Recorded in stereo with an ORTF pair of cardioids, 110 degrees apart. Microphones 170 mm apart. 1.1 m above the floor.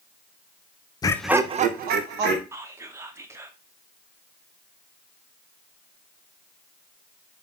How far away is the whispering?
About 0.7 m.